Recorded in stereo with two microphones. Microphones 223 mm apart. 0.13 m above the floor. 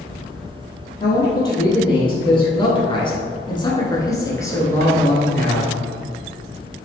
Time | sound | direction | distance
1.0 | a man speaking | 20° left (ahead or behind) | 1.6 m